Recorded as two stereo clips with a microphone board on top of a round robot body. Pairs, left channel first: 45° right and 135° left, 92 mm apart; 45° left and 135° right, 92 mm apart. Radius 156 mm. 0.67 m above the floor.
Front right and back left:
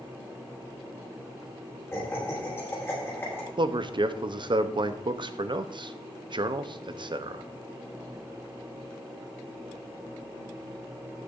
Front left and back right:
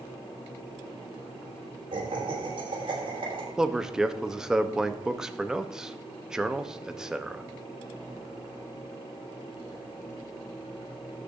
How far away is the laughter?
About 6 m.